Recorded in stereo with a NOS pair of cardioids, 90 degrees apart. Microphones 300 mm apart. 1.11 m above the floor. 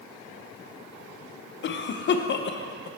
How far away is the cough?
About 0.6 m.